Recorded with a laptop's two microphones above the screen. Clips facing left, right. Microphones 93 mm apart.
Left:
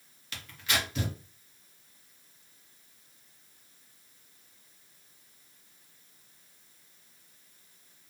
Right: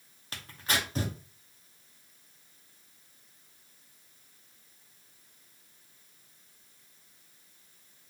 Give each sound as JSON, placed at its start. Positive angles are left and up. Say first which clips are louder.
{"t": 0.3, "sound": "tearing paper", "louder": "right 1 dB", "side_deg": -40, "distance_m": 0.7}